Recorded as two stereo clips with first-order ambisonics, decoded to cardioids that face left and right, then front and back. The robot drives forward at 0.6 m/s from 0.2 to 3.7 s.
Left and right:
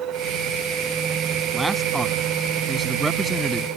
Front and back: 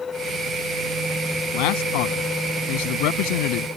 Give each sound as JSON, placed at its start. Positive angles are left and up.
{"t": 1.5, "sound": "a man speaking", "azimuth_deg": -5}